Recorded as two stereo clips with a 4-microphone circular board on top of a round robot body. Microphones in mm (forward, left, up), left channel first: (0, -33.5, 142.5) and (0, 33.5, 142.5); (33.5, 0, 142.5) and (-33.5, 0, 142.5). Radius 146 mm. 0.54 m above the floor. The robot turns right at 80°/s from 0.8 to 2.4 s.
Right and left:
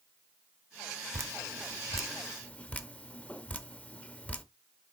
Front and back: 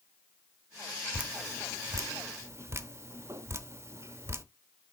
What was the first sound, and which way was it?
Dripping, 105° left.